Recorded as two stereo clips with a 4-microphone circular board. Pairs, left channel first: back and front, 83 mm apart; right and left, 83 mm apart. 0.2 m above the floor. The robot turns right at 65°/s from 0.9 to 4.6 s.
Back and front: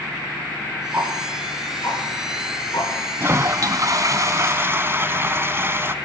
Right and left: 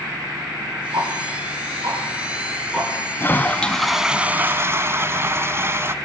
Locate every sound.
0.9 s ticking: 65° left, 4.5 m; by 2.9 s 170° right, 4.5 m
3.2 s a toilet flushing: 45° right, 0.8 m; by 6.0 s 45° left, 0.8 m